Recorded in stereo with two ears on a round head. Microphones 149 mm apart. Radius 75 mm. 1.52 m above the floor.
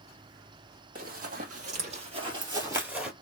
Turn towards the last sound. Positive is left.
turn(degrees=-5)  # may be behind; listen again after turning